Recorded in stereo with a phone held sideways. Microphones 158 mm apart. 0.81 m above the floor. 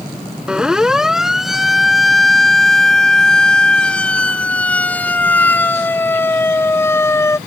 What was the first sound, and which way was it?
A siren, 5° right (ahead or behind).